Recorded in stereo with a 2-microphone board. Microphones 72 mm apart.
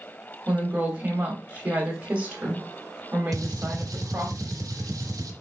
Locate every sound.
0.5 s a woman speaking: 20° right (ahead or behind), 1.1 m
3.3 s a gunshot: 55° right (ahead or behind), 0.8 m